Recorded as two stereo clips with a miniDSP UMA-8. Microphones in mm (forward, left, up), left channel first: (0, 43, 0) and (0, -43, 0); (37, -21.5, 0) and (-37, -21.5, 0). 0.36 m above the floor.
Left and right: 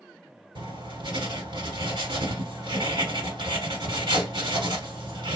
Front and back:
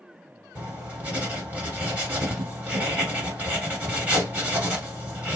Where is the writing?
110° right, 1.6 m.